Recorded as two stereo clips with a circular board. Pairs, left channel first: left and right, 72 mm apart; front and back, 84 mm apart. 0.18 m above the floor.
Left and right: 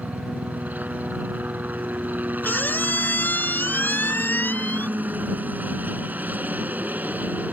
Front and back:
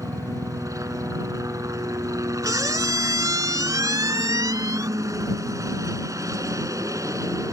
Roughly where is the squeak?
Behind left.